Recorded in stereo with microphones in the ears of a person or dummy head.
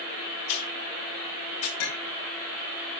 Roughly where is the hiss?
Left.